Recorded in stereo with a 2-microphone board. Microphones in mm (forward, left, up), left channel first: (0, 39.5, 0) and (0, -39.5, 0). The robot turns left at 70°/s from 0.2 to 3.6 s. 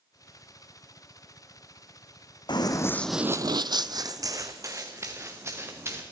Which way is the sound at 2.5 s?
70° left (ahead or behind).